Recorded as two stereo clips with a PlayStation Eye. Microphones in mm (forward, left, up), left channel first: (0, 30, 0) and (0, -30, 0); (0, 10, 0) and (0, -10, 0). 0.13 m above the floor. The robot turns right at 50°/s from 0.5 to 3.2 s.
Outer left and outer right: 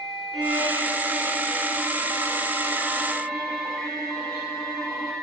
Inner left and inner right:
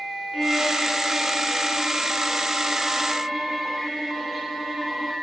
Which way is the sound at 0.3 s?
125° right.